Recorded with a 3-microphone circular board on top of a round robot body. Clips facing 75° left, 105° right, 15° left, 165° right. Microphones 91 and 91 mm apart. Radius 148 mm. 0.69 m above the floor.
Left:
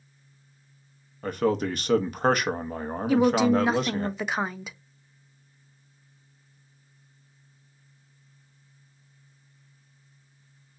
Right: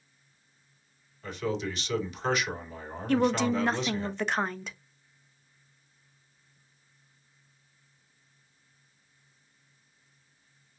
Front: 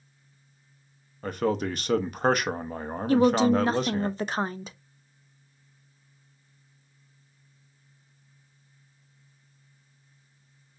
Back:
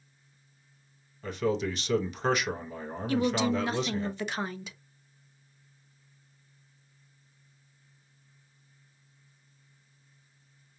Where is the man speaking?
45° left, 0.9 m.